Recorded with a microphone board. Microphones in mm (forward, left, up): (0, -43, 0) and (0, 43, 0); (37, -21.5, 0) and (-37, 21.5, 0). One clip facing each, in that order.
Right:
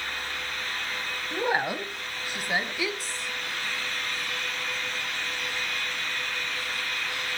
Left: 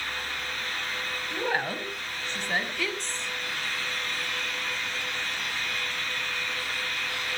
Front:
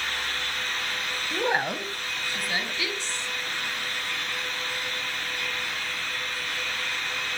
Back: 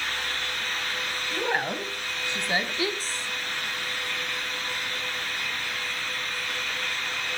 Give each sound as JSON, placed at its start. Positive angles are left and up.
{"t": 1.3, "sound": "a woman speaking", "azimuth_deg": -40, "distance_m": 1.0}